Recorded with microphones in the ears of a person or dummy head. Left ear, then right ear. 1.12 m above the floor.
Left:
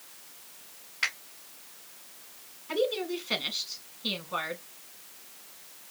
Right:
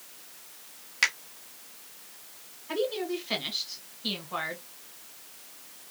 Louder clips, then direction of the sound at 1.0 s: Right 4 dB; 85° right.